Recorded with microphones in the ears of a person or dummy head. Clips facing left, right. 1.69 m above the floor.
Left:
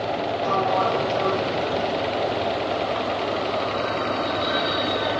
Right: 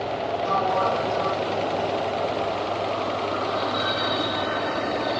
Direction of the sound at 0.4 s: 90° left.